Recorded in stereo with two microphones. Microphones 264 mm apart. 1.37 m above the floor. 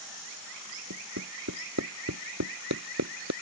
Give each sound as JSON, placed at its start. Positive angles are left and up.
{"t": 0.9, "sound": "hammering", "side_deg": -85}